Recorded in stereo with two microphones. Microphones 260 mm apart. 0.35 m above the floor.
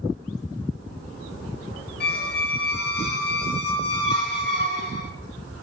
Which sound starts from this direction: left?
A squeak, at 2.0 s.